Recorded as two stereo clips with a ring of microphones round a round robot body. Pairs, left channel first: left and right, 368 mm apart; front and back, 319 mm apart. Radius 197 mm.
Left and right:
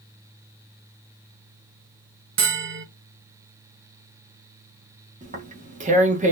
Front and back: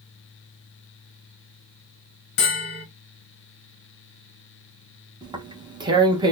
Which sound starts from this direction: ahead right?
A bell, at 2.4 s.